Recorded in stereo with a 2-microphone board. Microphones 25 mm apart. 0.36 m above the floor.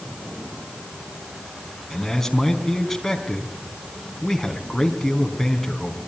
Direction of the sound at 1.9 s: 10° left (ahead or behind).